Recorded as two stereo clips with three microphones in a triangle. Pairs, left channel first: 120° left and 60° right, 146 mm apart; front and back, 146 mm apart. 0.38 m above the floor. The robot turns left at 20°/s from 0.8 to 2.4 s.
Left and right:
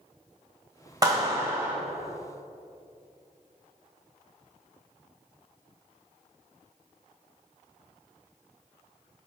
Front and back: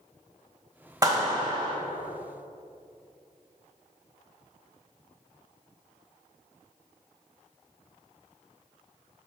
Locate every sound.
1.0 s a clap: 120° right, 1.4 m; by 1.8 s 135° right, 1.4 m